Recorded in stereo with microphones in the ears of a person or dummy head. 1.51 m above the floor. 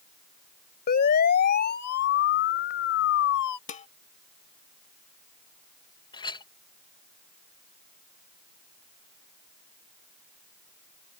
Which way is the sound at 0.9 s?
50° left (ahead or behind).